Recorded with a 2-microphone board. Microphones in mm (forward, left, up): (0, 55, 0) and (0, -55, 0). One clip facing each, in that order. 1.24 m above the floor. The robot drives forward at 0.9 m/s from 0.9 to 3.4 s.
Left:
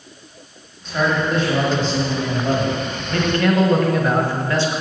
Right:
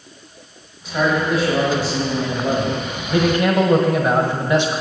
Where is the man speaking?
5° right (ahead or behind), 3.5 m; by 4.8 s 15° right (ahead or behind), 1.3 m.